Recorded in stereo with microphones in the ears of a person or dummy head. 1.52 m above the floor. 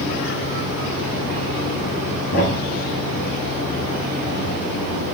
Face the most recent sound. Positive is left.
turn(degrees=65)  # may be behind; listen again after turning